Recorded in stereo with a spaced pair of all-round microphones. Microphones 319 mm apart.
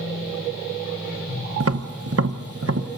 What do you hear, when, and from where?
1.6 s tapping: 50° right (ahead or behind), 0.8 m